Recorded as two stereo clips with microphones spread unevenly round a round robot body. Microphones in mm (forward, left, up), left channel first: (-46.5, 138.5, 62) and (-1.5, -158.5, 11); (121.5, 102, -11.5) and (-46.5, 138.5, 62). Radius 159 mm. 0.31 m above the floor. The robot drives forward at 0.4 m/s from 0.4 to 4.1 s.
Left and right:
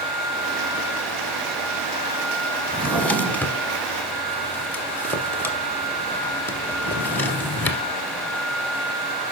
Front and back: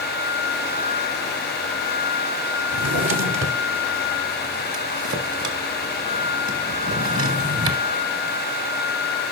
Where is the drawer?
170° right, 0.9 m; by 7.8 s 175° right, 1.4 m.